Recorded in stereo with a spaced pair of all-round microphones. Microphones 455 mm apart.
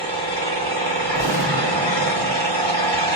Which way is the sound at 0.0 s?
60° right (ahead or behind).